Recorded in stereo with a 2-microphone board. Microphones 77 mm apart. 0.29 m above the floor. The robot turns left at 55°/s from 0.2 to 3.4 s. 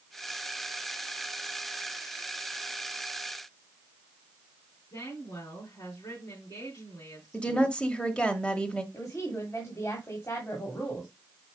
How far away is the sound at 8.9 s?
About 1.7 m.